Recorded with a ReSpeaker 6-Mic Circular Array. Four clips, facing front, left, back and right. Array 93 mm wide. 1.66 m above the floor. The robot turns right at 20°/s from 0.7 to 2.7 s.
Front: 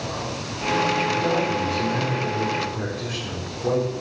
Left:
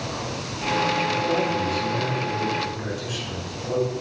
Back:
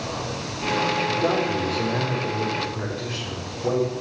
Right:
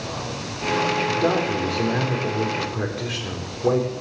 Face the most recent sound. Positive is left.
turn(degrees=-85)